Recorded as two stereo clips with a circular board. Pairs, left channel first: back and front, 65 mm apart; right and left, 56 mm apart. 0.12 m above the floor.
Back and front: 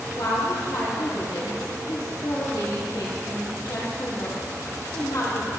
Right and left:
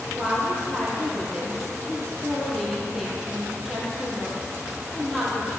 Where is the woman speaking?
Straight behind, 3 m.